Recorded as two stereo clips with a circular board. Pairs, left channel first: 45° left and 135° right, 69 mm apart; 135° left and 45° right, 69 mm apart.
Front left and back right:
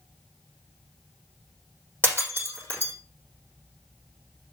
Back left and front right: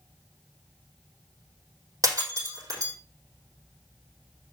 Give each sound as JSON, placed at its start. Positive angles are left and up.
{"t": 2.0, "sound": "breaking glass", "azimuth_deg": -80, "distance_m": 4.5}